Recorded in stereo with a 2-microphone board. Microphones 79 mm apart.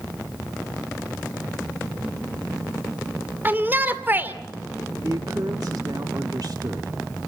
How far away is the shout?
About 1.9 m.